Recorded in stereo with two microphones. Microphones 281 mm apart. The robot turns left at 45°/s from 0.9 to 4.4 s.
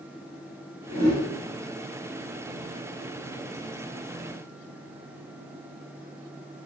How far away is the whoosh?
About 1.3 m.